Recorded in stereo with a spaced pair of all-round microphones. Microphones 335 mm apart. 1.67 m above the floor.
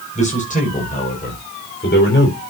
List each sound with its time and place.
0.1 s a man speaking: 20° left (ahead or behind), 6.5 m; by 2.4 s 40° left (ahead or behind), 5 m